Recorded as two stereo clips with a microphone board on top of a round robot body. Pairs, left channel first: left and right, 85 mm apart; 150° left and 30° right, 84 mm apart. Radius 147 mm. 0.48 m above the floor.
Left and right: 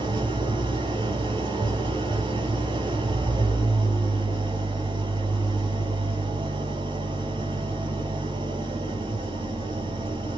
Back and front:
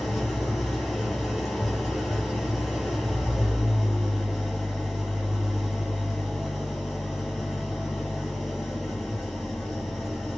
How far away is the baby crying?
No baby crying in this recording.